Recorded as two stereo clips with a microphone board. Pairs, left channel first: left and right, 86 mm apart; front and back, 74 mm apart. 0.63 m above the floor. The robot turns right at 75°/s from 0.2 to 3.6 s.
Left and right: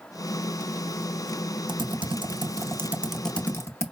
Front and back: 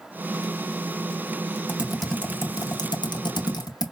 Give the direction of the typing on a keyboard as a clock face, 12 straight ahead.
4 o'clock.